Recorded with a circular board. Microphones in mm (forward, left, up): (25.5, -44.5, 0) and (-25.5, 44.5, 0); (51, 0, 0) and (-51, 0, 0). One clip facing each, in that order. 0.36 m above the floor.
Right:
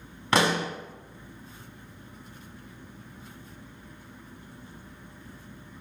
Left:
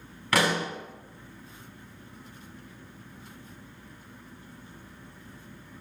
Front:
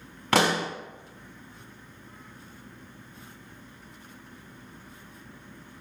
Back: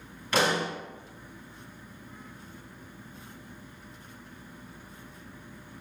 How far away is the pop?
About 0.7 m.